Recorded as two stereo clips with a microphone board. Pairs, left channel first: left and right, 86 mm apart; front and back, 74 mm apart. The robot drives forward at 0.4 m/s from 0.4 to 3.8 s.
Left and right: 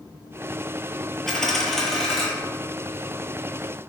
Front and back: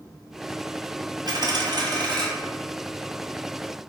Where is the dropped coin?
175° left, 0.7 m.